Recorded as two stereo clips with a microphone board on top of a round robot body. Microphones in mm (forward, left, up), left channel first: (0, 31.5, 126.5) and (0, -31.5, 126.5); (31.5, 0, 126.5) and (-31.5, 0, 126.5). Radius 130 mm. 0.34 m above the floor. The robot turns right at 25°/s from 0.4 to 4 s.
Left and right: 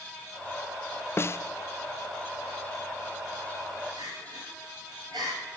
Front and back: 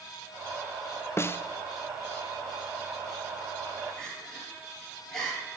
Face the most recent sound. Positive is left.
turn(degrees=-80)